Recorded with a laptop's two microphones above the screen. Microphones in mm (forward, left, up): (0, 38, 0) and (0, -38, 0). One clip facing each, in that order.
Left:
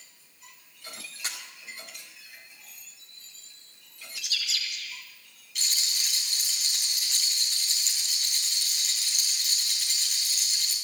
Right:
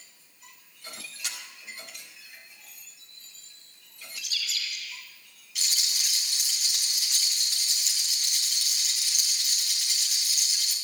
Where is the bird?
65° left (ahead or behind), 4 m.